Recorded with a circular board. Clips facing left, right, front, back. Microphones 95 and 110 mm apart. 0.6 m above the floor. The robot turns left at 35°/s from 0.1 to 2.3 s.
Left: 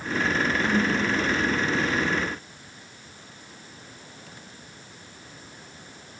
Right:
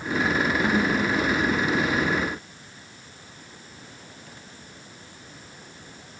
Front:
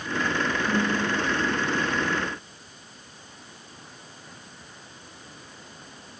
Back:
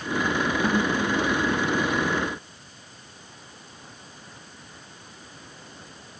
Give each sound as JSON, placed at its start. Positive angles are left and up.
{"t": 0.6, "sound": "a snare drum", "azimuth_deg": -165, "distance_m": 3.0}